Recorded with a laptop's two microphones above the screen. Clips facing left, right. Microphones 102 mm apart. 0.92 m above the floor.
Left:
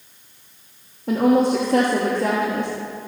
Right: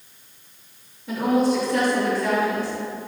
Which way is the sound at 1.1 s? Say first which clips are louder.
Left 4 dB; 55° left (ahead or behind).